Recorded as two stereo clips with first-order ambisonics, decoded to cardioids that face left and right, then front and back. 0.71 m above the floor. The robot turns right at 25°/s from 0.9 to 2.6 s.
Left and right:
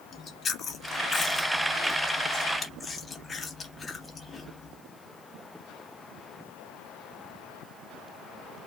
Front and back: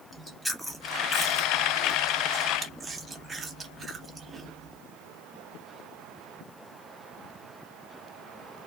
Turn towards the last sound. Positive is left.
turn(degrees=145)